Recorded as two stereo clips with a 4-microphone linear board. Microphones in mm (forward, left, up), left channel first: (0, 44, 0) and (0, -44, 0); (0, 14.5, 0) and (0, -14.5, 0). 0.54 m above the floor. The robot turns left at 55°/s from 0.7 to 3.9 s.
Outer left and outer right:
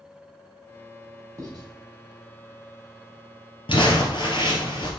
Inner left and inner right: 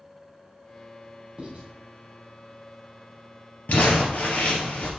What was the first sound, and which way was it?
Writing, 40° right (ahead or behind).